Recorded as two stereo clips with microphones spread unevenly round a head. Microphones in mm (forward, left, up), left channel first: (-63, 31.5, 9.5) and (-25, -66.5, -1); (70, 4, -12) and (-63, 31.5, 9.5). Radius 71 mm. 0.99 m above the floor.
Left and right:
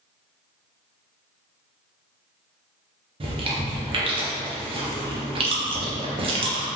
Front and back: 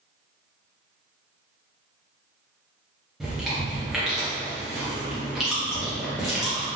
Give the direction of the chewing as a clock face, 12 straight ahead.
3 o'clock.